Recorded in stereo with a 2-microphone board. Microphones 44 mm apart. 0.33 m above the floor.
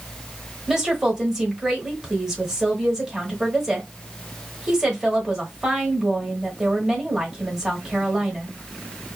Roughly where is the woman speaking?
Centre.